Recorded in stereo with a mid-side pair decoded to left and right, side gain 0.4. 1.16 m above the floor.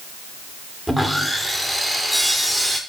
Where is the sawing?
Straight ahead, 2 m.